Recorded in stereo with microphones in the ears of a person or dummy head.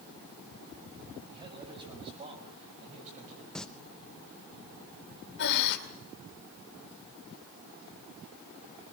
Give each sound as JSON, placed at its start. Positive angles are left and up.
{"t": 1.3, "sound": "a man speaking", "side_deg": -30, "distance_m": 7.0}
{"t": 3.5, "sound": "singing", "side_deg": 10, "distance_m": 0.8}
{"t": 5.4, "sound": "breathing", "side_deg": 55, "distance_m": 2.0}